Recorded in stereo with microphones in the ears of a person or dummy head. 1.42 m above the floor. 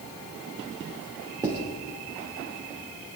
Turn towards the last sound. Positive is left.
turn(degrees=-20)  # may be behind; listen again after turning